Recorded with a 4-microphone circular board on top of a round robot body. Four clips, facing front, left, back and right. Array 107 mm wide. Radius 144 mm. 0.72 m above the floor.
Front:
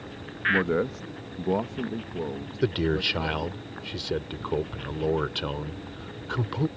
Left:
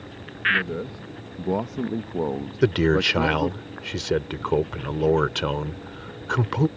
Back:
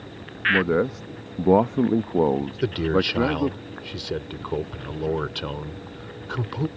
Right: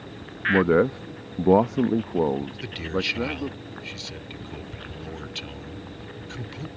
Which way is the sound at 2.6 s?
90° left.